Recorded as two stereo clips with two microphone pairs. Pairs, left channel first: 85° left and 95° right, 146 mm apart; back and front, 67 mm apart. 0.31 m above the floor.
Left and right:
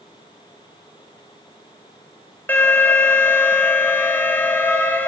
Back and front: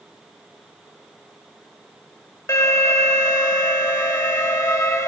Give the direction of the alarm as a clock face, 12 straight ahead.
7 o'clock.